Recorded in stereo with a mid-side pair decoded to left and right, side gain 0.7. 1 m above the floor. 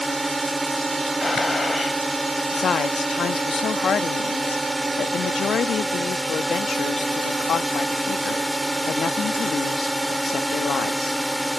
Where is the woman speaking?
35° left.